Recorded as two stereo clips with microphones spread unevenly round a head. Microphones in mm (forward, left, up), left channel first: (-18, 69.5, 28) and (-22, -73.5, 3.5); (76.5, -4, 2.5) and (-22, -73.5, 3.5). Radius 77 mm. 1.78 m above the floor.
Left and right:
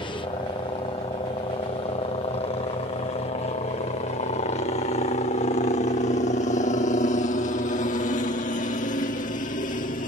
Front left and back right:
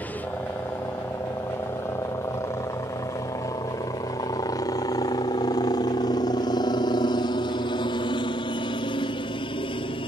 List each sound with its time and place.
0.0 s a helicopter: 90° left; by 10.1 s 70° left